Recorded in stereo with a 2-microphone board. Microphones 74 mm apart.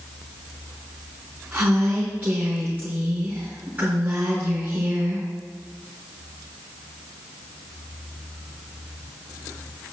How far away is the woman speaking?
About 3.5 m.